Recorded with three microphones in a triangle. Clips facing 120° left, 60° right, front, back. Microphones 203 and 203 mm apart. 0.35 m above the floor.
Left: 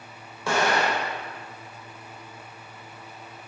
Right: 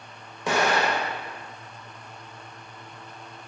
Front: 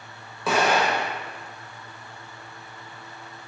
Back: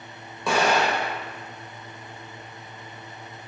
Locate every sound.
0.5 s an explosion: 85° right, 0.6 m